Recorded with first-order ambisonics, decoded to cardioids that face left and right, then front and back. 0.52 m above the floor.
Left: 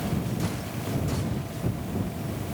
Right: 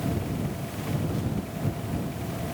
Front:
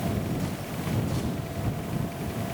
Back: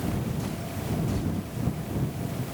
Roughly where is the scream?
No scream in this recording.